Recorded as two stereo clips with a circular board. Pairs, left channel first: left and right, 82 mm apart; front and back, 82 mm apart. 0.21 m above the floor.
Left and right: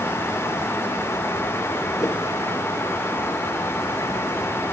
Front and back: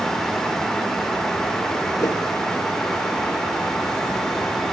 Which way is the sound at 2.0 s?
45° left.